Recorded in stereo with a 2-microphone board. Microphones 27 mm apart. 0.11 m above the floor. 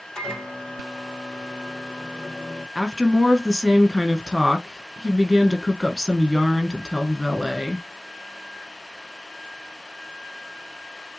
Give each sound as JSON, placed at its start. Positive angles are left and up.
{"t": 0.1, "sound": "a microwave", "side_deg": 25, "distance_m": 2.5}
{"t": 2.8, "sound": "a woman speaking", "side_deg": -20, "distance_m": 1.4}